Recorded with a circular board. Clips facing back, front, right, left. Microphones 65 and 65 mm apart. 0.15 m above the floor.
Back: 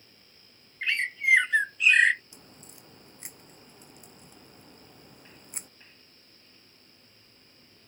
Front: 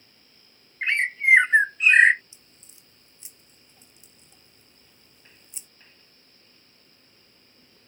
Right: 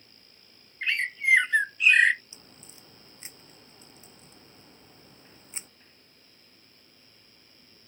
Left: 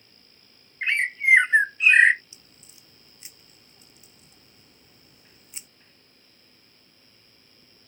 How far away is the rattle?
I don't hear a rattle.